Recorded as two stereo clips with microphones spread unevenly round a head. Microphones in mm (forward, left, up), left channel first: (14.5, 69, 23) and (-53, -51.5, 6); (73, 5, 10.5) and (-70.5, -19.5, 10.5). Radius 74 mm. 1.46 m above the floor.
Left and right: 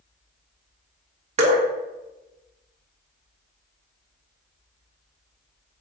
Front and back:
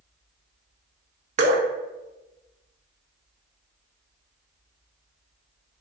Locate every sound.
1.4 s dripping: 155° right, 0.7 m